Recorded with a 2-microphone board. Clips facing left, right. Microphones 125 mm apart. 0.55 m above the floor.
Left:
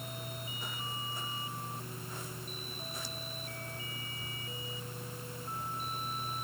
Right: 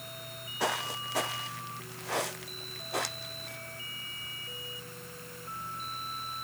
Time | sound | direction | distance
0.6 | footsteps | 85° right | ?